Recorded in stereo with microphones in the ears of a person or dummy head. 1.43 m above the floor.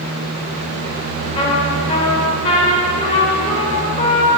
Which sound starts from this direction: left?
A trumpet, at 1.4 s.